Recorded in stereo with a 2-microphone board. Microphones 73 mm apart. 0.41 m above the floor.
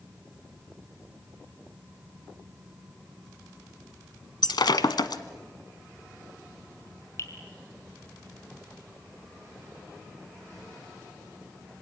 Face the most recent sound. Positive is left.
turn(degrees=45)  # may be behind; listen again after turning